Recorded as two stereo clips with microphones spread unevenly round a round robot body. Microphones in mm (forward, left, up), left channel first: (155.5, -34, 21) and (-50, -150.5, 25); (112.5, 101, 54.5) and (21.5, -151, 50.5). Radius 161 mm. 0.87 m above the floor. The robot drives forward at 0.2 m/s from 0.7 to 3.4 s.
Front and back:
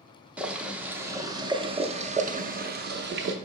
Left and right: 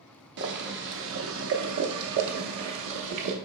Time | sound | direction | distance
0.4 | boiling | 65° right | 0.7 m